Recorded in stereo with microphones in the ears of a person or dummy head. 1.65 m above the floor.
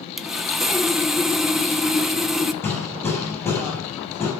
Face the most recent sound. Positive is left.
turn(degrees=10)  # may be behind; listen again after turning